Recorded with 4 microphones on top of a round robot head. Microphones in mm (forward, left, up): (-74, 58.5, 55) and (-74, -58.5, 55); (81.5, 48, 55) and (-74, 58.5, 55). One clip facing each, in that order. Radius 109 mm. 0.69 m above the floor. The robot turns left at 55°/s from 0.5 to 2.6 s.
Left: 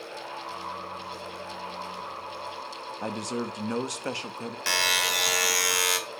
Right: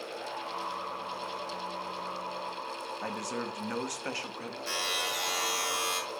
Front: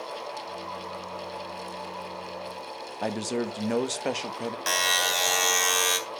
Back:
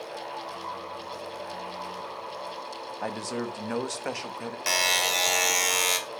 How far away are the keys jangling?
I don't hear keys jangling.